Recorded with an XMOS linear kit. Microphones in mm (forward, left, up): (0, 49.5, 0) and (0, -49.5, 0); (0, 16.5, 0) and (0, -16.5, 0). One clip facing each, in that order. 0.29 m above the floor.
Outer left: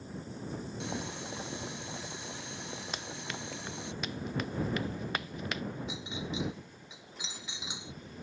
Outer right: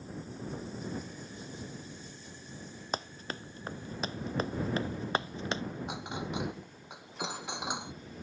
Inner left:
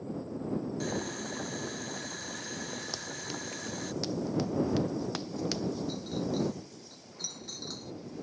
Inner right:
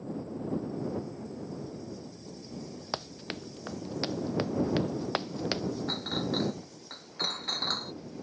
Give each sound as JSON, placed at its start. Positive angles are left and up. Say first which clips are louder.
{"t": 0.8, "sound": "boiling", "louder": "outer left 2 dB, inner left 1 dB", "side_deg": 70}
{"t": 2.9, "sound": "running footsteps", "louder": "outer right 2 dB, inner right 1 dB", "side_deg": -35}
{"t": 5.9, "sound": "a clink", "louder": "outer right 2 dB, inner right 2 dB", "side_deg": -50}